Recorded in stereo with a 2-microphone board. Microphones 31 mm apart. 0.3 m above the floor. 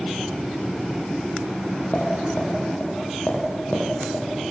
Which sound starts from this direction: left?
Tapping, at 1.9 s.